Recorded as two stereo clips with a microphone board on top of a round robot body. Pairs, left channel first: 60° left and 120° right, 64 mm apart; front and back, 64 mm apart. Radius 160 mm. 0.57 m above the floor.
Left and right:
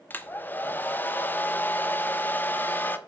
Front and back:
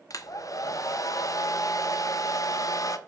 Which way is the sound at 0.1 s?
5° left.